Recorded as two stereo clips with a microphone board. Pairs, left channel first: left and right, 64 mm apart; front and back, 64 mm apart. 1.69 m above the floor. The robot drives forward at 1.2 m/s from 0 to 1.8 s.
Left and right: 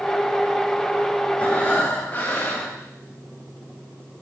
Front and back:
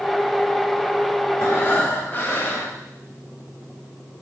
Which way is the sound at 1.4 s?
30° left.